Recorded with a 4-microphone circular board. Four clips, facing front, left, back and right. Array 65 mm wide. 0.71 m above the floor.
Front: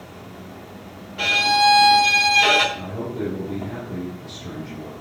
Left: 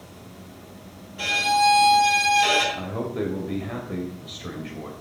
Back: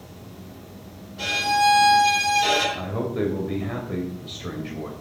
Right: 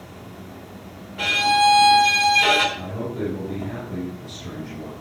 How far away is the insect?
About 1.0 m.